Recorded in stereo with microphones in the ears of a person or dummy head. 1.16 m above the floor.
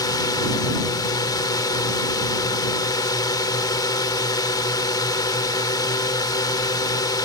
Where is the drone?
15° left (ahead or behind).